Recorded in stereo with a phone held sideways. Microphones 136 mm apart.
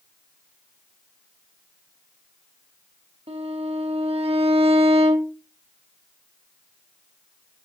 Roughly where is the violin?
Right.